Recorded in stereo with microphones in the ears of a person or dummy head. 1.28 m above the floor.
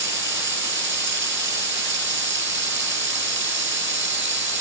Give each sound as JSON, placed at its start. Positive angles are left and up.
{"t": 0.0, "sound": "running water", "side_deg": -60}